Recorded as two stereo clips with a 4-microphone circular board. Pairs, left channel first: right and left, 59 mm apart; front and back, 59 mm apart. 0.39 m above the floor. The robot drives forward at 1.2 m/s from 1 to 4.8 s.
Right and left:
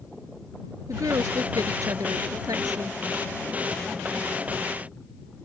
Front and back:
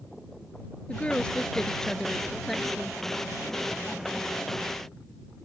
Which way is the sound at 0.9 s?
75° left.